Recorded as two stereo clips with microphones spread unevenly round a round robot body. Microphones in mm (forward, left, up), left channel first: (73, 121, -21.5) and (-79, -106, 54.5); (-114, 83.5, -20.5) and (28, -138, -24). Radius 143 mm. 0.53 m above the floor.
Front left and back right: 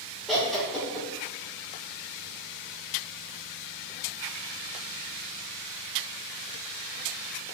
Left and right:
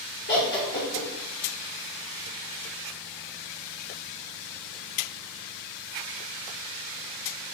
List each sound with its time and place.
0.3 s laughter: 125° left, 0.8 m